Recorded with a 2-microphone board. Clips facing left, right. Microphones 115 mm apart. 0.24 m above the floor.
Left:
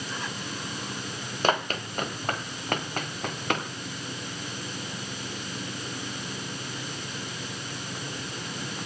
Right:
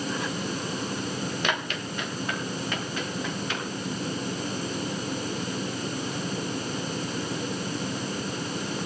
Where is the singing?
No singing in this recording.